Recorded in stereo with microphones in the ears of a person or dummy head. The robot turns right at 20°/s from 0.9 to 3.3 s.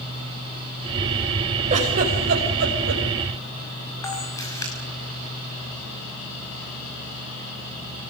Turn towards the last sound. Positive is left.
turn(degrees=15)  # may be behind; listen again after turning